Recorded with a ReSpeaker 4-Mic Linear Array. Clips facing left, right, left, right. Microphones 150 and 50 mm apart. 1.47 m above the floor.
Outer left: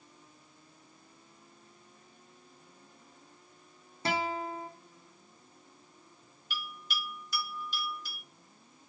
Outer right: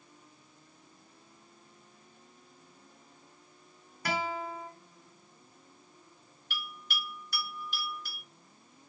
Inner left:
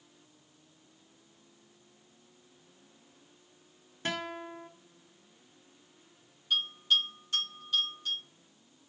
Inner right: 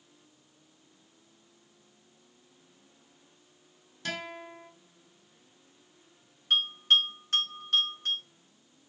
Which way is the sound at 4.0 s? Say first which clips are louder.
Outer left 1 dB, inner left 2 dB; 25° left (ahead or behind).